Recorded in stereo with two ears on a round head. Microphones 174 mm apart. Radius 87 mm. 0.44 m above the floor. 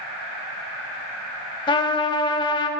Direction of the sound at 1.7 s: 25° left (ahead or behind).